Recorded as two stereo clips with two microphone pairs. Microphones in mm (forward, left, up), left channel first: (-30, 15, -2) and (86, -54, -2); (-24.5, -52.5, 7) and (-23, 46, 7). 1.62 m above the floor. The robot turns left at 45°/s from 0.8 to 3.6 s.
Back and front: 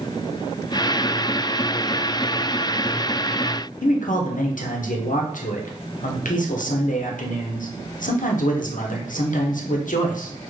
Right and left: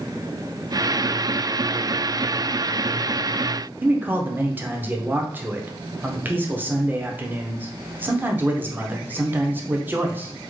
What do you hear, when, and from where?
3.8 s a man speaking: 160° left, 0.6 m